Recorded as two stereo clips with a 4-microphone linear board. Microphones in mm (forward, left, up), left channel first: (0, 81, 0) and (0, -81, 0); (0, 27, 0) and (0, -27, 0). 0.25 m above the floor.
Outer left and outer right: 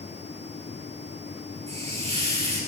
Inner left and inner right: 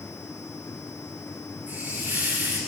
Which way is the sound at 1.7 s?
40° right (ahead or behind).